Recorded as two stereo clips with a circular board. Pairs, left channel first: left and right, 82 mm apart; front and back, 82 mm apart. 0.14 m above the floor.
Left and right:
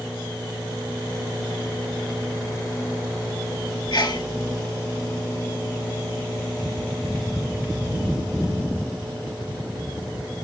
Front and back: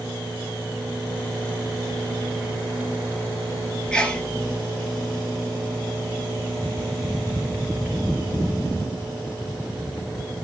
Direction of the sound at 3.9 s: 80° left.